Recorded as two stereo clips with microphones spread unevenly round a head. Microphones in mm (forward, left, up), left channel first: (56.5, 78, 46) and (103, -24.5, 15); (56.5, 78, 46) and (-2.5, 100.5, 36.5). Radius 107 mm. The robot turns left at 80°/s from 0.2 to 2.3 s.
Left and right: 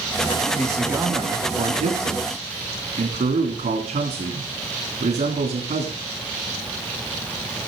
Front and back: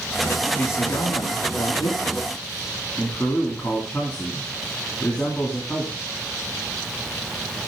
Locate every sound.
0.6 s a man speaking: 40° left, 3 m; by 6.0 s 100° right, 3 m